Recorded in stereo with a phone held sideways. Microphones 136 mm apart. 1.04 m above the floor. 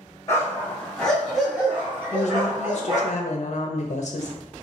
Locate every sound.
0.3 s a dog barking: 25° left (ahead or behind), 1.6 m; by 3.1 s 30° right (ahead or behind), 2.5 m
2.1 s a woman speaking: 60° left (ahead or behind), 0.6 m